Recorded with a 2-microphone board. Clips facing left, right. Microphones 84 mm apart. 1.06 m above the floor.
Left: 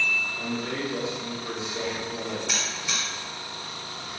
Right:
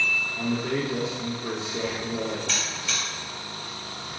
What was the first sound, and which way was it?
A man speaking, 35° right (ahead or behind).